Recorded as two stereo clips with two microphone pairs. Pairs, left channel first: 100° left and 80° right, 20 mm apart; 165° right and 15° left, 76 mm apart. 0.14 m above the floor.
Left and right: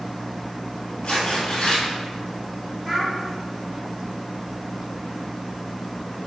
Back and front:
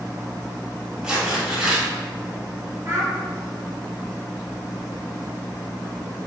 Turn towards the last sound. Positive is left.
turn(degrees=15)